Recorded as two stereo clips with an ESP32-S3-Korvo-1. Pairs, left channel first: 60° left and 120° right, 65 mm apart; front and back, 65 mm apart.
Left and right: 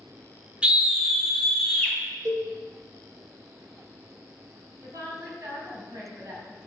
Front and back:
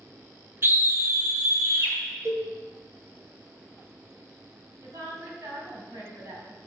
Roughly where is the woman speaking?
Behind right.